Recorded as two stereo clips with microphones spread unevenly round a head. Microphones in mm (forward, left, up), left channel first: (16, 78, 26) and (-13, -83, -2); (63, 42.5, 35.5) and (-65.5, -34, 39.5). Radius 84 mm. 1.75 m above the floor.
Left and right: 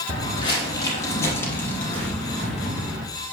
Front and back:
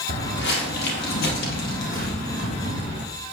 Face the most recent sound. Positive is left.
turn(degrees=-10)